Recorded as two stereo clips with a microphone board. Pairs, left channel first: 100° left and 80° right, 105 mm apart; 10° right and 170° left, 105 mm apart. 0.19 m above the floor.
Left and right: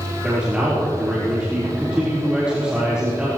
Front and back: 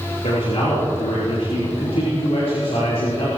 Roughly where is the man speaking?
Ahead.